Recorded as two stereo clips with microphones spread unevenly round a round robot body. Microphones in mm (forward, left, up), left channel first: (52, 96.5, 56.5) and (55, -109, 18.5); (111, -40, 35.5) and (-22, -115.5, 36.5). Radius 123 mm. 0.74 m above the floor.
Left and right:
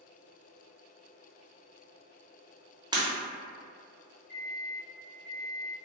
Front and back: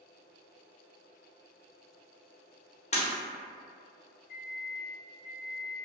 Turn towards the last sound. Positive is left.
turn(degrees=20)